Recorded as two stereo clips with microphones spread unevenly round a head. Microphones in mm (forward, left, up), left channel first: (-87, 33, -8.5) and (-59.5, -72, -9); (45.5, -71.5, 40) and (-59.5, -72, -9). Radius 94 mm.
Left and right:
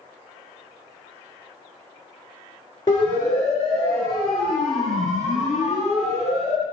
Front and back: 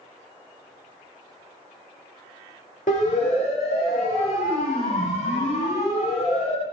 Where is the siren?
35° left, 6.5 m; by 6.6 s 5° left, 7.5 m.